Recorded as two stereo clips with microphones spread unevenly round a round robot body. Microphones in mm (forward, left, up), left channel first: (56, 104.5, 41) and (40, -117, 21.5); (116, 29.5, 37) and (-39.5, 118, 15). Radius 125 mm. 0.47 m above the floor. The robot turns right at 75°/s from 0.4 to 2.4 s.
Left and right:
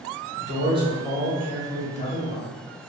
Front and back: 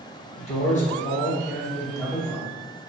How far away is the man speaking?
About 0.9 m.